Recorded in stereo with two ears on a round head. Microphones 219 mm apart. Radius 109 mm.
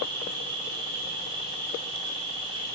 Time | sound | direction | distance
0.0 | an insect | 20° right (ahead or behind) | 3 m